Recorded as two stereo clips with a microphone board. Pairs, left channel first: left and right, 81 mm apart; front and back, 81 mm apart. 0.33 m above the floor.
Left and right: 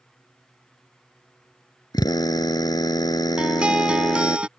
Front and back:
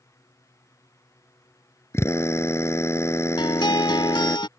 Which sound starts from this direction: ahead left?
A drill, at 1.9 s.